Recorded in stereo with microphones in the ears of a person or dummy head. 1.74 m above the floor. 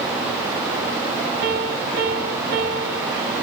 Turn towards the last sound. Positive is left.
turn(degrees=-55)  # may be behind; listen again after turning